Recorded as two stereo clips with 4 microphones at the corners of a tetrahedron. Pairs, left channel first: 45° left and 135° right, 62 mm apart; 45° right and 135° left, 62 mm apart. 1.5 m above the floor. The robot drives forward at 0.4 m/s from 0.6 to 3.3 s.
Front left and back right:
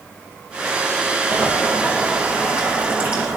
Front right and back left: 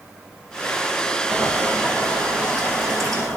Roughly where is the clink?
No clink in this recording.